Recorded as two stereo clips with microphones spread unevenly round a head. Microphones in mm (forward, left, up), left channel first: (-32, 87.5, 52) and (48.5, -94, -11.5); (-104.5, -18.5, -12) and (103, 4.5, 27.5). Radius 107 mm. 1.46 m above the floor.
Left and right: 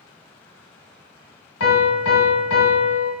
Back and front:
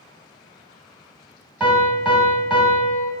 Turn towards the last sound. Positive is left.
turn(degrees=90)